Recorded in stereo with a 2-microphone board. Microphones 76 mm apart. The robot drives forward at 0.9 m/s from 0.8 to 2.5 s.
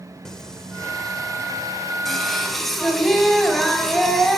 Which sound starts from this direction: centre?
Singing, at 0.2 s.